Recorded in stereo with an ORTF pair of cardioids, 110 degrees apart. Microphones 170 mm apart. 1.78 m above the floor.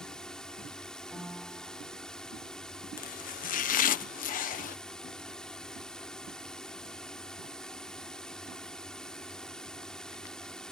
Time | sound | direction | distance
0.0 | a drone | 5° left | ?
1.1 | a piano | straight ahead | ?
3.0 | chopping | 55° left | ?